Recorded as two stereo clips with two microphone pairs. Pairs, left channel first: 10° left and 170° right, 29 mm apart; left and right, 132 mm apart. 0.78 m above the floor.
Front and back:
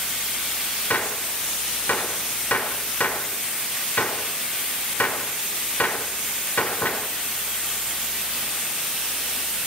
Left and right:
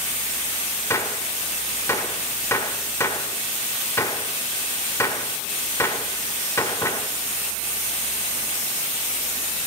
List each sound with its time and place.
0.9 s a gunshot: 20° left, 1.5 m